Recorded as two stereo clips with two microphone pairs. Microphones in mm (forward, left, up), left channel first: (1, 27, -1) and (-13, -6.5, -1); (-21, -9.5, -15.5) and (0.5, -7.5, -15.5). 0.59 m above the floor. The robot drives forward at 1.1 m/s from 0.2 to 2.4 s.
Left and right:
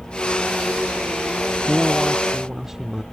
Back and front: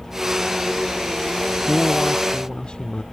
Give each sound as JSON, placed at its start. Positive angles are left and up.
{"t": 1.7, "sound": "a man speaking", "azimuth_deg": 160}